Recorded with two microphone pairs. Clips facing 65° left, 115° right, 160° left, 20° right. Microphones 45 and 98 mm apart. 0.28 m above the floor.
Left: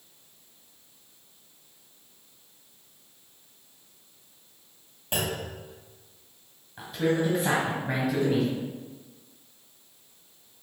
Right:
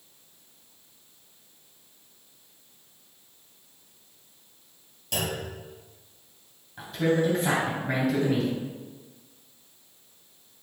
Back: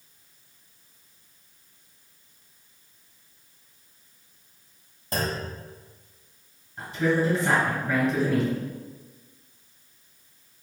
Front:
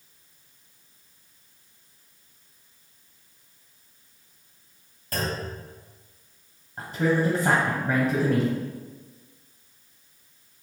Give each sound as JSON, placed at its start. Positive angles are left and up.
{"t": 5.1, "sound": "a clunk", "azimuth_deg": 105, "distance_m": 1.7}
{"t": 6.8, "sound": "a man speaking", "azimuth_deg": -25, "distance_m": 1.3}